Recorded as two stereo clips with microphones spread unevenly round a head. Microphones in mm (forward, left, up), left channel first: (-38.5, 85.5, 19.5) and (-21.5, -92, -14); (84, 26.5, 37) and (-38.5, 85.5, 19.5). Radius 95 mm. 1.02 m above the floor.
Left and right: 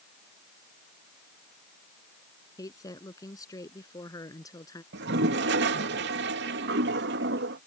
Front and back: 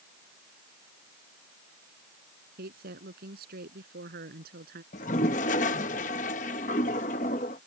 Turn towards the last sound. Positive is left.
turn(degrees=-70)